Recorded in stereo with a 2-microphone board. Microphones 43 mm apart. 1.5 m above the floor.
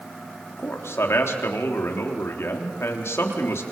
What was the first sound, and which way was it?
A man speaking, 85° left.